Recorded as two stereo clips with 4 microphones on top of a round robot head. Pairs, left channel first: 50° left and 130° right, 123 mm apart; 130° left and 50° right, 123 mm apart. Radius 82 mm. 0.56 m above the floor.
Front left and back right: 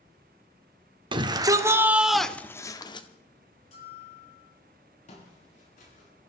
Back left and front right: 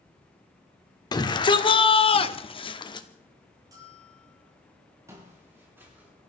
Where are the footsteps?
20° left, 7 m; by 6.1 s 30° left, 6.5 m.